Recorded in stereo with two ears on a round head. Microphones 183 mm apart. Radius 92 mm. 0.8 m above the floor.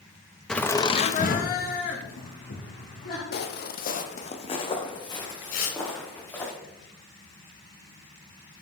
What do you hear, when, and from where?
0.5 s laughter: centre (ahead or behind), 1.0 m; by 3.2 s 50° left (ahead or behind), 3 m
3.3 s footsteps: 55° left (ahead or behind), 1.3 m; by 6.5 s 10° left (ahead or behind), 4 m
5.5 s tearing paper: 45° left (ahead or behind), 2 m